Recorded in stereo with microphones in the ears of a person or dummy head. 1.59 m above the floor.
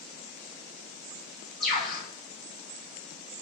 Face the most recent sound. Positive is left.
turn(degrees=0)  # may be behind; listen again after turning